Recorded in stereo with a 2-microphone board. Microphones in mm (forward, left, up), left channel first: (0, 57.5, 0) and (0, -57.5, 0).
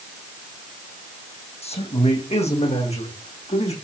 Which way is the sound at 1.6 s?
70° left (ahead or behind).